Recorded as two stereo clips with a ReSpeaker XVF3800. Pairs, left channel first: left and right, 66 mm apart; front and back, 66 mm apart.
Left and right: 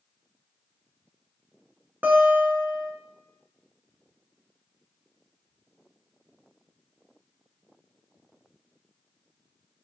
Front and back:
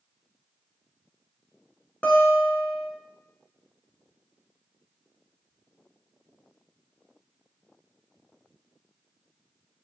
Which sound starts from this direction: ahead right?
A guitar, at 2.0 s.